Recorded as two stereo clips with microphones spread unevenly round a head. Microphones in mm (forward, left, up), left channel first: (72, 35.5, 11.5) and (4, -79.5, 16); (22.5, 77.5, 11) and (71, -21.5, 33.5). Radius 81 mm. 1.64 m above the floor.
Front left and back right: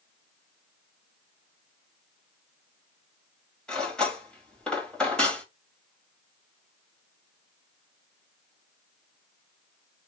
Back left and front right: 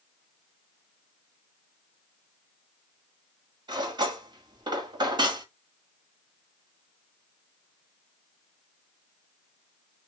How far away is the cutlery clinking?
About 1.8 m.